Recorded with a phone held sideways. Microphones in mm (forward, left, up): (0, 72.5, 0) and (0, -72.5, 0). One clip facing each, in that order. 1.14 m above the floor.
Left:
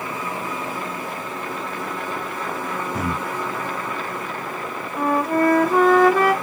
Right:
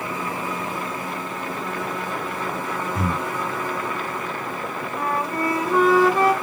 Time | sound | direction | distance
2.9 | breathing | 85° left | 1.9 m
5.0 | a flute | 60° left (ahead or behind) | 1.7 m